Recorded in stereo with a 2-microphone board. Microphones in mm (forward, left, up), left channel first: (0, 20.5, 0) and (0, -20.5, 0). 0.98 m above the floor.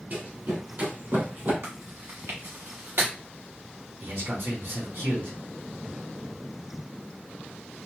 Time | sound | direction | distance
0.1 | running footsteps | 45° right (ahead or behind) | 1.4 m
1.6 | chewing | 70° right (ahead or behind) | 1.4 m
4.0 | a man speaking | 65° right (ahead or behind) | 1.8 m